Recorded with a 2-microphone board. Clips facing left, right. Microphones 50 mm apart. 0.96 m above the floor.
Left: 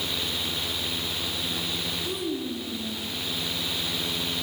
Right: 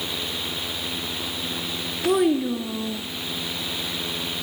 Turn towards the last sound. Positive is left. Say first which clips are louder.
# right 14 dB
turn(degrees=-75)  # may be behind; listen again after turning